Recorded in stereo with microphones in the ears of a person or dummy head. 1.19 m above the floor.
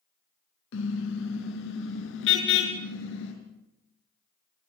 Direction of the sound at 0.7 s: 70° left (ahead or behind).